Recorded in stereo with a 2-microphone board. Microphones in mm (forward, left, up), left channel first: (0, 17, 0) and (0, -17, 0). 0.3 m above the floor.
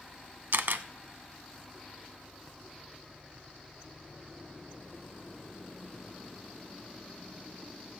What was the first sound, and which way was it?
A camera shutter, 80° right.